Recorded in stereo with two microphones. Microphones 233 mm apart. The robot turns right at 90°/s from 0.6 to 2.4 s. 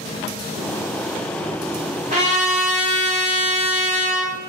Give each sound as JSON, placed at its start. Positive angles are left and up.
{"t": 2.1, "sound": "a trumpet", "side_deg": -35, "distance_m": 1.2}